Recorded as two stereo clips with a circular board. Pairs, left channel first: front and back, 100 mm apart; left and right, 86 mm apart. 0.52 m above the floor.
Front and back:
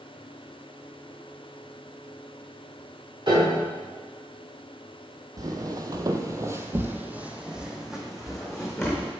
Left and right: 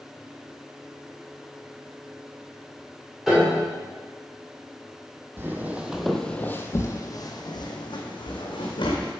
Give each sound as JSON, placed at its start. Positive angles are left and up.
{"t": 3.3, "sound": "a piano", "azimuth_deg": -175, "distance_m": 2.0}
{"t": 5.4, "sound": "footsteps", "azimuth_deg": -145, "distance_m": 0.8}